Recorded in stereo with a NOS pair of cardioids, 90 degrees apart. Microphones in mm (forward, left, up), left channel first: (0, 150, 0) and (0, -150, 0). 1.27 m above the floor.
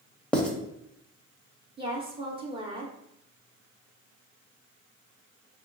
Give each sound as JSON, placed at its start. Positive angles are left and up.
{"t": 0.3, "sound": "writing", "azimuth_deg": 5, "distance_m": 0.5}
{"t": 1.8, "sound": "a woman speaking", "azimuth_deg": -15, "distance_m": 0.6}